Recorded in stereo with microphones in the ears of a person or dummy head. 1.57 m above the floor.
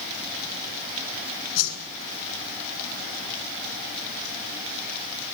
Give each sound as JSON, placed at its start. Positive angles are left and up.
{"t": 1.6, "sound": "a whoosh", "side_deg": 85, "distance_m": 9.0}